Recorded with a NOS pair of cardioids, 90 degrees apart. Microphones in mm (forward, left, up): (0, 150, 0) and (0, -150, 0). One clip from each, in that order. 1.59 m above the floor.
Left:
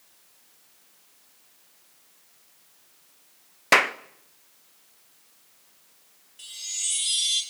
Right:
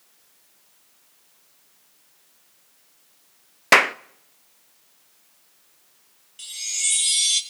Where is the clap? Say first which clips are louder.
Right 4 dB; 20° right, 0.6 m.